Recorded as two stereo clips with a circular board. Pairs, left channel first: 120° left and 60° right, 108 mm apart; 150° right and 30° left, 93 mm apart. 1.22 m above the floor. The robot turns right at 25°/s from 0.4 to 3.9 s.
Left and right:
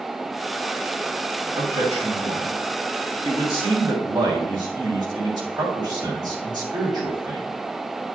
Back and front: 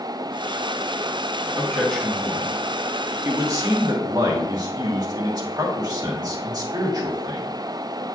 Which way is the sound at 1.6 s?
70° right.